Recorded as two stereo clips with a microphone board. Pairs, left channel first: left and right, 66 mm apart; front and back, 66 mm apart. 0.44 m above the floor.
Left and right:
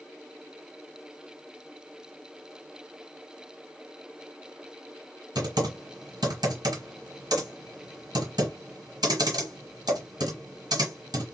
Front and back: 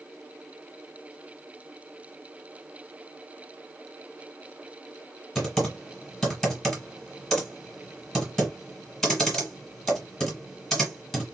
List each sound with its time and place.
5.3 s typing on a keyboard: 85° right, 1.9 m